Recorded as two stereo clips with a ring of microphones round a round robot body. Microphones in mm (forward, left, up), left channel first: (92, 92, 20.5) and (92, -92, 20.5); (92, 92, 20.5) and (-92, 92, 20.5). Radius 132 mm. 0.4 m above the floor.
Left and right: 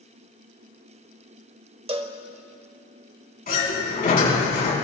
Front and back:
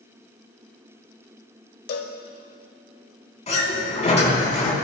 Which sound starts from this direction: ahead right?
A cowbell, at 1.9 s.